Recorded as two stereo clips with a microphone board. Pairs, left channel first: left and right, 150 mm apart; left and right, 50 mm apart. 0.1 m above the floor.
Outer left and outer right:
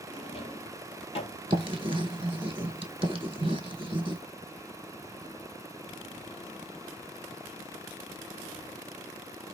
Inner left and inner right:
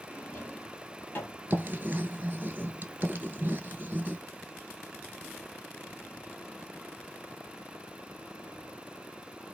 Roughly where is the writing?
Right.